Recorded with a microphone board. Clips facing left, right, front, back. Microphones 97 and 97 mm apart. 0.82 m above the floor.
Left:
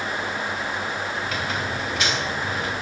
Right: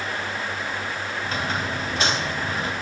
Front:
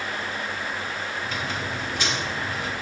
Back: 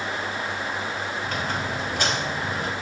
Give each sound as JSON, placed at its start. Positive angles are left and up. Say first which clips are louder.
{"t": 1.2, "sound": "a squeak", "louder": "even, back 2 dB", "azimuth_deg": -145, "distance_m": 3.0}